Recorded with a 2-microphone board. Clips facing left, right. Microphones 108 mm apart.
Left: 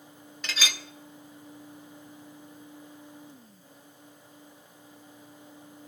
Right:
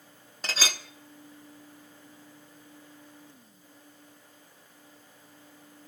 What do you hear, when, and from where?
0.4 s a clink: 35° right (ahead or behind), 0.6 m